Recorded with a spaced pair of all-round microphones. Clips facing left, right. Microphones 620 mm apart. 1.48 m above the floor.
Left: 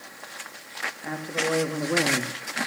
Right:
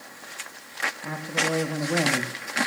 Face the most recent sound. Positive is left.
turn(degrees=5)  # may be behind; listen again after turning